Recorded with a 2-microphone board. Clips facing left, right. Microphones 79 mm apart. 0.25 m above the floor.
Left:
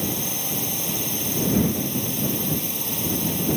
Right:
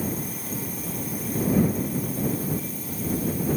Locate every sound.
0.0 s a drone: 75° left (ahead or behind)